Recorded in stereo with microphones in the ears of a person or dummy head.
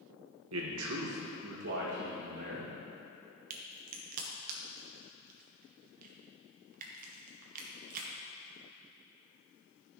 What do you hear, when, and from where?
0.5 s a man speaking: 80° right, 1.3 m; by 2.7 s 55° right (ahead or behind), 2.5 m
3.5 s a crack: 40° right (ahead or behind), 1.1 m